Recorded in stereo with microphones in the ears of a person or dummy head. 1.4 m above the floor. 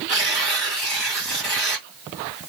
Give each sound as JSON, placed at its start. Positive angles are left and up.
{"t": 0.1, "sound": "tearing paper", "side_deg": 0, "distance_m": 1.8}